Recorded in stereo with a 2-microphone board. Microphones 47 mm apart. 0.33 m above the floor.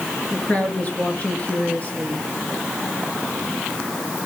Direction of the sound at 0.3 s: 30° left (ahead or behind).